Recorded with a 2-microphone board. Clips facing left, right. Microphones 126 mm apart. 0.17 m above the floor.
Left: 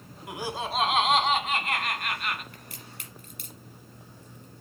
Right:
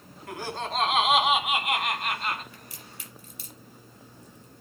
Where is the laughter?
15° left (ahead or behind), 1.5 m; by 2.4 s 30° right (ahead or behind), 1.8 m.